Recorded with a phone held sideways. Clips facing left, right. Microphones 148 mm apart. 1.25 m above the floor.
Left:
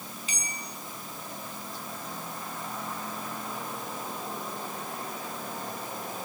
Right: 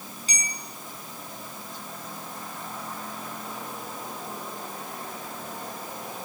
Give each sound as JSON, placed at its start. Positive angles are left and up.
{"t": 0.3, "sound": "a bell", "side_deg": -40, "distance_m": 6.0}